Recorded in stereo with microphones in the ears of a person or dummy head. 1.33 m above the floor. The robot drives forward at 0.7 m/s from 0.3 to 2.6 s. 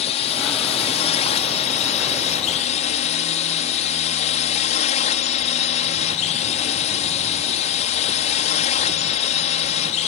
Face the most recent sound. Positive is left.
turn(degrees=35)  # may be behind; listen again after turning